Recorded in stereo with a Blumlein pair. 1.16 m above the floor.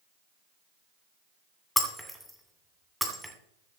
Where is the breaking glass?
Straight ahead, 2.5 m.